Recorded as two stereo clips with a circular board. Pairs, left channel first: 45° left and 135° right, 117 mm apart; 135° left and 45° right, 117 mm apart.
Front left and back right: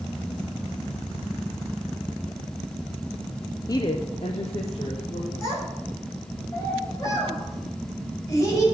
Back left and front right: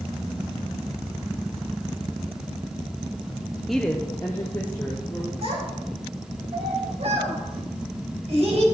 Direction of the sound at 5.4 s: 15° right.